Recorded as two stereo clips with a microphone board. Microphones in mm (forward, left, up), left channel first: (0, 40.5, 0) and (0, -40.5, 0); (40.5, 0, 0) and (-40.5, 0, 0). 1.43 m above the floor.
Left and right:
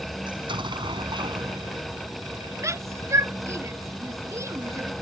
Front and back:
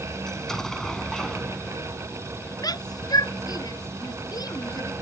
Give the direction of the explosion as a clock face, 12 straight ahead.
3 o'clock.